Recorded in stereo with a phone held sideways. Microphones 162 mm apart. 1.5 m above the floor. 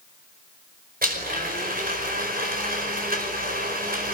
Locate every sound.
1.0 s a blender: 65° right (ahead or behind), 5 m